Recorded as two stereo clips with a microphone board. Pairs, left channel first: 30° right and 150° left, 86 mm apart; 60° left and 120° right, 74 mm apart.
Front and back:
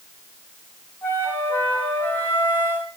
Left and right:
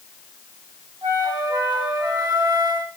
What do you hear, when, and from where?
1.0 s a flute: 95° right, 2 m